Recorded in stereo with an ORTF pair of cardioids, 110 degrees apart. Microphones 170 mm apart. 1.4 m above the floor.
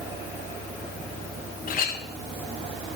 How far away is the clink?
About 1.1 m.